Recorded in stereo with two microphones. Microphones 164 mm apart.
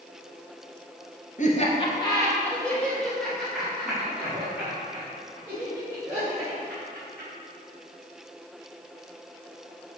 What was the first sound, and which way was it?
Laughter, 50° left (ahead or behind).